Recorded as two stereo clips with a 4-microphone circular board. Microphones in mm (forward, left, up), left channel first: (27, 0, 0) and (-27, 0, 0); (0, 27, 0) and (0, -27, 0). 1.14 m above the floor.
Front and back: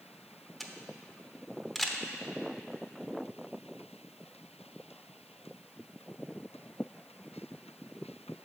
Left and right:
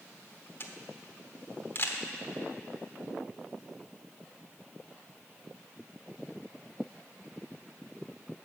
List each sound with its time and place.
0.6 s a camera shutter: 90° left, 0.9 m